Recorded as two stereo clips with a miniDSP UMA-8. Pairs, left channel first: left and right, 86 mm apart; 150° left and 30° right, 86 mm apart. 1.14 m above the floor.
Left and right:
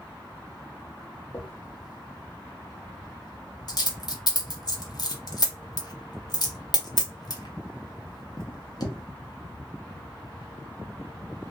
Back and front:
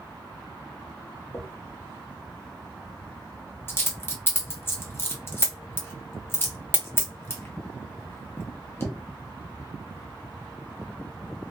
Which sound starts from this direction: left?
A dropped coin, at 1.3 s.